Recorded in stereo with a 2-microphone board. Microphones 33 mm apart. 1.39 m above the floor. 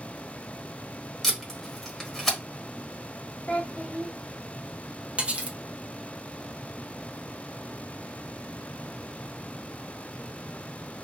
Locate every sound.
1.2 s tape being pulled: 10° left (ahead or behind), 1.2 m
3.5 s a child speaking: 45° left (ahead or behind), 0.6 m
5.2 s cutlery clinking: 35° right (ahead or behind), 0.7 m